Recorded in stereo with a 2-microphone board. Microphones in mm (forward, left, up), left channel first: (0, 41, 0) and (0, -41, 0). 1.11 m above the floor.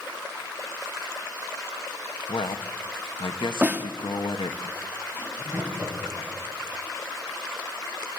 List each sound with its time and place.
2.3 s a man speaking: 80° left, 1.2 m
3.6 s a snare drum: 25° right (ahead or behind), 1.4 m
5.1 s laughter: 25° right (ahead or behind), 6.5 m